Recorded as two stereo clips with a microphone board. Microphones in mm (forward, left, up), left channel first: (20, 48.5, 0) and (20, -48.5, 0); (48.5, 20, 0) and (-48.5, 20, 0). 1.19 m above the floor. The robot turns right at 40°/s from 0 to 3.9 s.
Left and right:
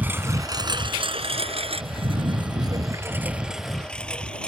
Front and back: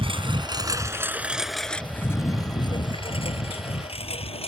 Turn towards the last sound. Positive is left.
turn(degrees=10)